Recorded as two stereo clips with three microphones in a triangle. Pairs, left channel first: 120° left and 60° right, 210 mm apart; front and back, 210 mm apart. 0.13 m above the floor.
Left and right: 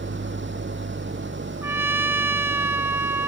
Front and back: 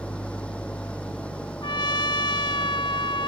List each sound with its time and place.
0.0 s an engine running: 85° right
1.6 s a trumpet: straight ahead